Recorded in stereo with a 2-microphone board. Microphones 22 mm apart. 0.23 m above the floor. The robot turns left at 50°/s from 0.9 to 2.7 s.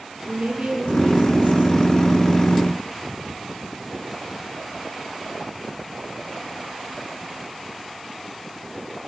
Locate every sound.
0.3 s a woman speaking: 65° right, 5.5 m; by 1.9 s 115° right, 5.5 m